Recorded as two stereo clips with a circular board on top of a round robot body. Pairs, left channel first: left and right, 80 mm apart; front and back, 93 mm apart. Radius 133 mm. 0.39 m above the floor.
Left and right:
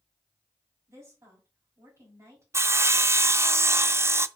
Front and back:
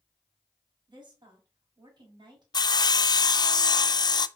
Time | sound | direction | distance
0.9 | a woman speaking | 140° right | 3 m
2.5 | sawing | 35° right | 0.5 m